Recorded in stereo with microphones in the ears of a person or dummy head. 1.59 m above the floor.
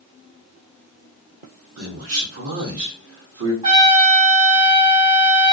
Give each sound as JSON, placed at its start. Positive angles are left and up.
{"t": 1.8, "sound": "a man speaking", "side_deg": -70, "distance_m": 0.8}
{"t": 3.6, "sound": "a trumpet", "side_deg": -25, "distance_m": 1.9}